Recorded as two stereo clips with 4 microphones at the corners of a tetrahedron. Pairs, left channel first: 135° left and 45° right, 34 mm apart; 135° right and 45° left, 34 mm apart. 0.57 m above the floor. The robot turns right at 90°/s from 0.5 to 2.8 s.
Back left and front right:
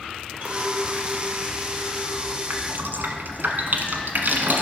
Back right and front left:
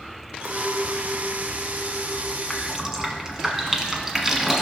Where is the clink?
5° right, 1.4 m; by 2.4 s 165° left, 1.4 m.